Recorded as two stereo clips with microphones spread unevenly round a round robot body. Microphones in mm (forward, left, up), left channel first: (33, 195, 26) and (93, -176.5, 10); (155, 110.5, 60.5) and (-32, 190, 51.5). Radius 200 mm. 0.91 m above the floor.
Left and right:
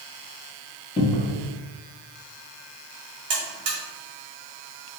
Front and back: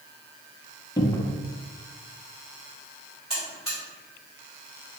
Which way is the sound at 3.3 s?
115° right.